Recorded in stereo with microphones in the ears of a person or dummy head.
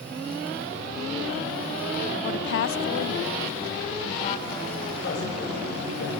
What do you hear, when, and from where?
2.2 s a woman speaking: 55° left (ahead or behind), 0.7 m; by 4.9 s 30° left (ahead or behind), 2.5 m
5.0 s a man speaking: 55° left (ahead or behind), 7 m